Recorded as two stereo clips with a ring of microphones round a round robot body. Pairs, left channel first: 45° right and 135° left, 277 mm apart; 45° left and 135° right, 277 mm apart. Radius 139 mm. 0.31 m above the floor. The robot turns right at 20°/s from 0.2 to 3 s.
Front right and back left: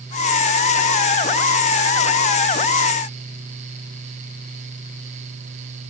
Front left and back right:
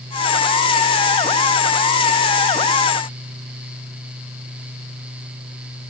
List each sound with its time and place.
Only background noise.